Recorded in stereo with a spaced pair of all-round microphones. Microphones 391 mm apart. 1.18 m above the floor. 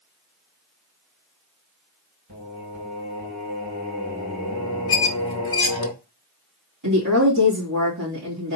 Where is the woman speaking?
50° right (ahead or behind), 2.5 m.